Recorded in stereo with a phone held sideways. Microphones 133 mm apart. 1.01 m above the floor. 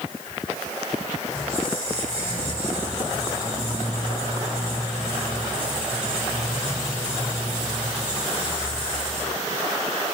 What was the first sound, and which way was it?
A squeak, 35° left (ahead or behind).